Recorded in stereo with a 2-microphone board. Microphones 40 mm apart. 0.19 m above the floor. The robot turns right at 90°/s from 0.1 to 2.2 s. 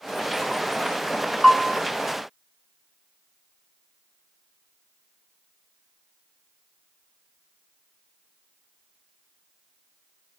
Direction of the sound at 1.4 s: 5° left (ahead or behind).